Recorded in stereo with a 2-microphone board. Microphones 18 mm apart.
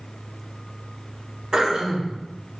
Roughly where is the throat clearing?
Right.